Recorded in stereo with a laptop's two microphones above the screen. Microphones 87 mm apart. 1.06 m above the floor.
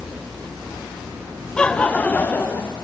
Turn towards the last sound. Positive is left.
turn(degrees=20)  # may be behind; listen again after turning